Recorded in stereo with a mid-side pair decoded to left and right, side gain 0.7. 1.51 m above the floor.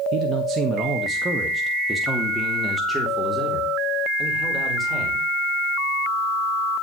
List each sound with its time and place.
0.1 s a man speaking: 50° right, 1.4 m; by 5.2 s straight ahead, 5 m